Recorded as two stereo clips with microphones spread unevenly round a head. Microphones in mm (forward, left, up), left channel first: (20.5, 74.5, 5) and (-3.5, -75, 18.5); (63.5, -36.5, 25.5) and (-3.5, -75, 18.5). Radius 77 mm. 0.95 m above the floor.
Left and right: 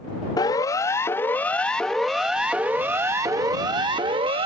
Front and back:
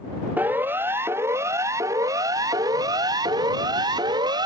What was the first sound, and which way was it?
A siren, 140° left.